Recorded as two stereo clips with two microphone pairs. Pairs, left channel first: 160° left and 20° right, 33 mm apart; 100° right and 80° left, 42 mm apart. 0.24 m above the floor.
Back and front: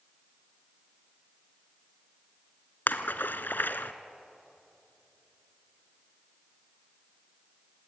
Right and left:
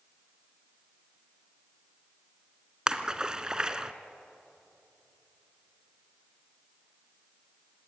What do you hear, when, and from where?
2.9 s a splash: 150° left, 1.0 m